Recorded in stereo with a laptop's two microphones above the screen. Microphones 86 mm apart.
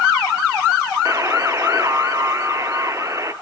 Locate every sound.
1.1 s a buzzer: 40° right (ahead or behind), 0.6 m